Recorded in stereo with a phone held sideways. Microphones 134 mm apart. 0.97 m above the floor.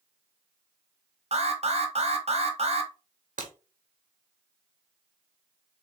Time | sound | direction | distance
1.3 | an alarm | 50° right (ahead or behind) | 0.9 m
3.4 | breaking glass | 75° right (ahead or behind) | 1.3 m